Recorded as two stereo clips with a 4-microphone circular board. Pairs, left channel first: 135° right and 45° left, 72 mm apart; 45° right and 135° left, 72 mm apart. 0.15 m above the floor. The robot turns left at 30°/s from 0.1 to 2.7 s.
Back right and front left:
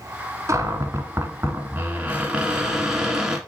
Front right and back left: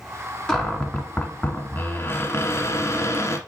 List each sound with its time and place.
0.5 s a cupboard door: 35° left, 1.3 m; by 3.4 s 35° right, 1.3 m